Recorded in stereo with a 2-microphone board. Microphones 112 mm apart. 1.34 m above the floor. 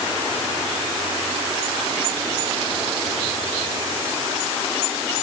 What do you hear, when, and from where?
Only background noise.